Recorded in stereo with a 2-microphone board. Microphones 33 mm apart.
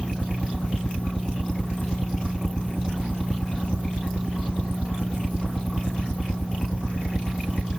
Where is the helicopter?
45° left (ahead or behind); by 7.8 s 60° left (ahead or behind).